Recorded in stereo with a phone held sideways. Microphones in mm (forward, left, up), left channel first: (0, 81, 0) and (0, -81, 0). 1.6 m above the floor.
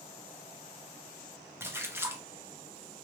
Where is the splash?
15° right (ahead or behind), 0.7 m.